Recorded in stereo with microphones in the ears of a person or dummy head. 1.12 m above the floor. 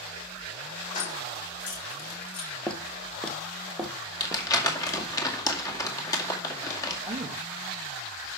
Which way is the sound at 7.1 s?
35° right (ahead or behind).